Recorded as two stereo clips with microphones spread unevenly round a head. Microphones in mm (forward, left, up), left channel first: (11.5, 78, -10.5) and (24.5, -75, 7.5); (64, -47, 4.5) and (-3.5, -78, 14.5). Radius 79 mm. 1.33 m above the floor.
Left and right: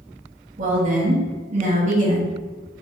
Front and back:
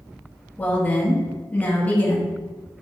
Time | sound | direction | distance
0.6 | a woman speaking | 40° right | 1.1 m